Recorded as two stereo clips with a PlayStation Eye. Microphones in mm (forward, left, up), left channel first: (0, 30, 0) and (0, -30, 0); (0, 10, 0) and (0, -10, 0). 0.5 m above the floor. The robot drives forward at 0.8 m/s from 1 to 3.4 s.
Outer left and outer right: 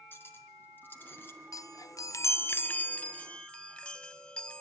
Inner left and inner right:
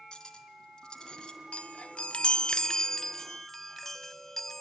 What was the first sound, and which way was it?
Cutlery clinking, 35° left (ahead or behind).